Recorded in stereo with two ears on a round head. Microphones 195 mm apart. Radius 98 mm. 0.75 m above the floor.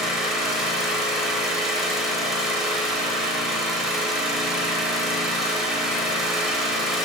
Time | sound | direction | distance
0.0 | an engine running | centre (ahead or behind) | 0.7 m